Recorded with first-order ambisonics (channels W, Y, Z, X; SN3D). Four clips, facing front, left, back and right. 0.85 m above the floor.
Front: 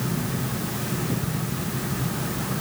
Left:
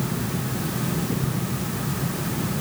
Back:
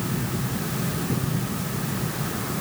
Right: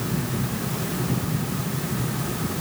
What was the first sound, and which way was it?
Only background noise.